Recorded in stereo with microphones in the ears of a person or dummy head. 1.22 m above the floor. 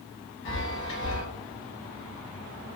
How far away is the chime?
About 1.0 m.